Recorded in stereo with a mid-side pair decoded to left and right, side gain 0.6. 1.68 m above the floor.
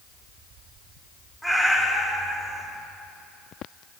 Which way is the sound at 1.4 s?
Straight ahead.